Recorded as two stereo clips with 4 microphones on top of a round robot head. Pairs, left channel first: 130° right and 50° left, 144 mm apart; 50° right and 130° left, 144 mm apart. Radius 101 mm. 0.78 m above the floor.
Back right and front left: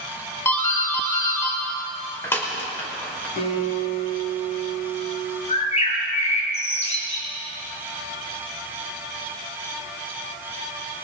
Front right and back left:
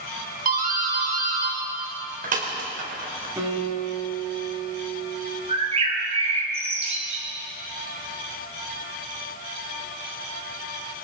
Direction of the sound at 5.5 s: Straight behind.